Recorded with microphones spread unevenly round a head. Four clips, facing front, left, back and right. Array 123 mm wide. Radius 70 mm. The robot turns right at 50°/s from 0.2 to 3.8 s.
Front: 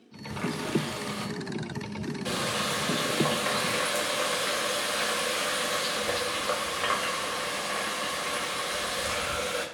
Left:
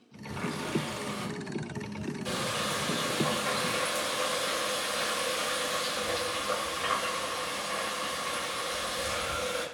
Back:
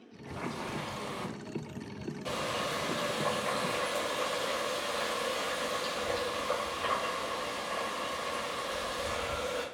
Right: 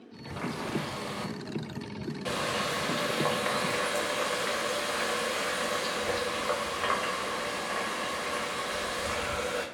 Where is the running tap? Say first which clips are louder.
Even, front 7 dB; 150° left, 0.7 m; by 9.7 s 35° right, 0.7 m.